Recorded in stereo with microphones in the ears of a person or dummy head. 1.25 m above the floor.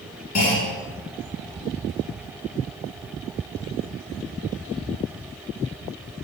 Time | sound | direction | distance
0.3 | a clunk | 40° left (ahead or behind) | 2 m